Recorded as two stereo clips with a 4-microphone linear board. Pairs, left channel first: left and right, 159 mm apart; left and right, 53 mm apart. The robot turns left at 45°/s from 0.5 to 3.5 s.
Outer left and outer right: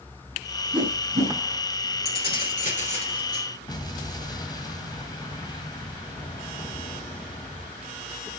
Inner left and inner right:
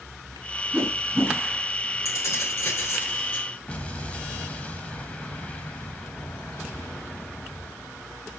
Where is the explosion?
25° left (ahead or behind), 2.0 m.